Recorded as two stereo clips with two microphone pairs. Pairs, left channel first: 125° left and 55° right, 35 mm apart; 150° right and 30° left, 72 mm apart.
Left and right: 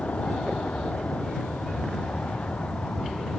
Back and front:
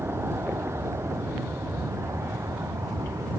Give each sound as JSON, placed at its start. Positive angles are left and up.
{"t": 0.0, "sound": "an aircraft", "azimuth_deg": 80}